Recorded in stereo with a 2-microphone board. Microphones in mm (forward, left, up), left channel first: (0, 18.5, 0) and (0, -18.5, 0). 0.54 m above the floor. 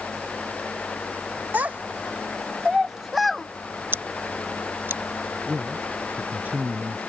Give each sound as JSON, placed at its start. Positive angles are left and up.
{"t": 1.5, "sound": "a child speaking", "side_deg": -50}
{"t": 3.9, "sound": "scissors", "side_deg": -65}
{"t": 5.5, "sound": "a man speaking", "side_deg": -45}